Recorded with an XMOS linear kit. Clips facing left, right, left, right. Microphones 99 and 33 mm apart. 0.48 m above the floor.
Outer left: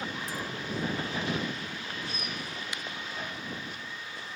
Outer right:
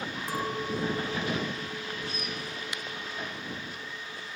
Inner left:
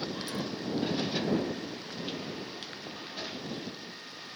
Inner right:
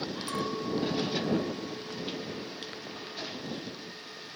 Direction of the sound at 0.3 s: 60° right (ahead or behind).